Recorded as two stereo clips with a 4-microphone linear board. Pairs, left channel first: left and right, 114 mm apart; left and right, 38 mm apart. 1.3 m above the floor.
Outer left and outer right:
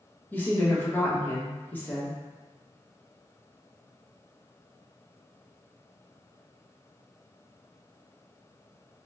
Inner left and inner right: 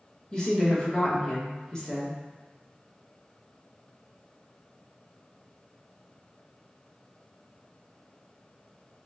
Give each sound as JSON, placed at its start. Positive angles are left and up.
{"t": 0.3, "sound": "a woman speaking", "side_deg": 15, "distance_m": 1.1}